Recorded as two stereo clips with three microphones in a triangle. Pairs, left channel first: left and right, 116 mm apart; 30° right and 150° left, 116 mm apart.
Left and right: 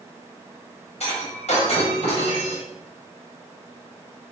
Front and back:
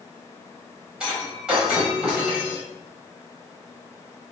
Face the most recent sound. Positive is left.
turn(degrees=65)